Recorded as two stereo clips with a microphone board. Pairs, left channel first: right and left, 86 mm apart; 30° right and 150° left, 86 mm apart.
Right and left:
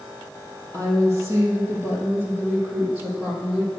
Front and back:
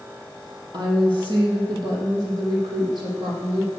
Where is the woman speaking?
135° left, 3 m; by 3.7 s 165° left, 4 m.